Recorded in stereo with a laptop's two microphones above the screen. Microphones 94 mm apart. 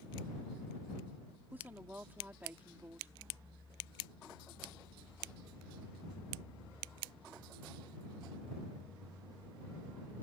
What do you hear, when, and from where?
1.5 s a woman speaking: 20° right (ahead or behind)